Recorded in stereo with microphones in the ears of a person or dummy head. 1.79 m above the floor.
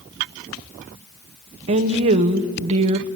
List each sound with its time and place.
1.7 s a woman speaking: 30° right (ahead or behind), 0.8 m